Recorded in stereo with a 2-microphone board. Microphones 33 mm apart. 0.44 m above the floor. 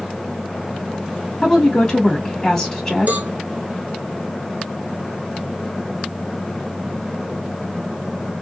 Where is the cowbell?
60° right (ahead or behind), 0.5 m.